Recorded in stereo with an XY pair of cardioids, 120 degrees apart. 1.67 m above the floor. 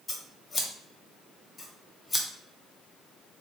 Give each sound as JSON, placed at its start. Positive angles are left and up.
{"t": 0.1, "sound": "scissors", "azimuth_deg": 25, "distance_m": 0.6}